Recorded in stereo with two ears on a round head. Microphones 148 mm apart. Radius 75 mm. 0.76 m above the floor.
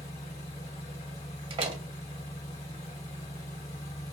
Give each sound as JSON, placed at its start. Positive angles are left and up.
{"t": 0.0, "sound": "an engine running", "side_deg": 40, "distance_m": 1.0}
{"t": 1.5, "sound": "a door slam", "side_deg": -30, "distance_m": 0.7}